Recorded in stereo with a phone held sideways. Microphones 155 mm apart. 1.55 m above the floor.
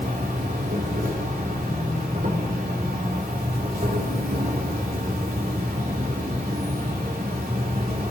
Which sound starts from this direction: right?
An insect, at 0.0 s.